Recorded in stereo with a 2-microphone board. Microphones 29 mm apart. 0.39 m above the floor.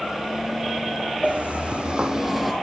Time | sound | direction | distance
1.2 | footsteps | 60° right (ahead or behind) | 1.1 m